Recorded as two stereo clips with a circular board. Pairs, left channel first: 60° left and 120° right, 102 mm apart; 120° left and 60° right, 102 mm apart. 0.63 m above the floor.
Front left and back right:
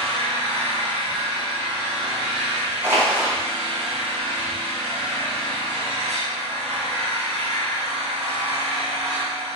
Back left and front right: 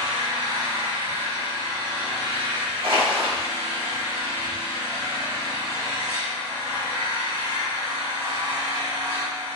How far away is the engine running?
About 1.0 m.